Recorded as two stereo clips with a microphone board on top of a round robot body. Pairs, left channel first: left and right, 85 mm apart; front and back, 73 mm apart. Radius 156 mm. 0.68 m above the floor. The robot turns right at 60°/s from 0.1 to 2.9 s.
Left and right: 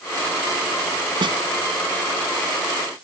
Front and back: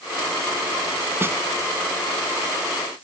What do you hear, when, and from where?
1.2 s a snare drum: 125° right; by 1.4 s 110° right